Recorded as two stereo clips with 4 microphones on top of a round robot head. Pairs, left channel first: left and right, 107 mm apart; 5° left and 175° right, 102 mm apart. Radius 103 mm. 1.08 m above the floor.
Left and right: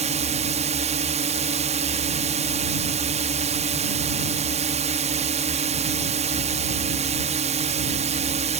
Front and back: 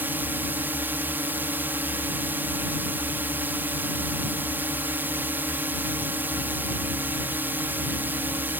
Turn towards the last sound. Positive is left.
turn(degrees=-100)